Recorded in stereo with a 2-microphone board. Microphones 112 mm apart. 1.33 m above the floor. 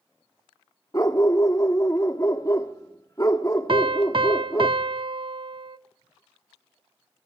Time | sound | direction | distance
0.9 | a dog barking | 30° left (ahead or behind) | 1.2 m
3.7 | a piano | 50° right (ahead or behind) | 0.6 m